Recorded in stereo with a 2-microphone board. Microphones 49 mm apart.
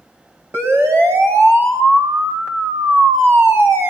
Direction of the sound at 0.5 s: 55° right (ahead or behind).